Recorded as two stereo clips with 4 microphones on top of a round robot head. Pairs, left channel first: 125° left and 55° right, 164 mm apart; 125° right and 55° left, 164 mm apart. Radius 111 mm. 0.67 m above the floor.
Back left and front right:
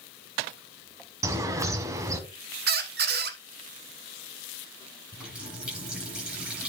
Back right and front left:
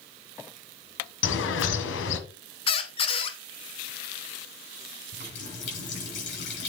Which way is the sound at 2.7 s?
75° right.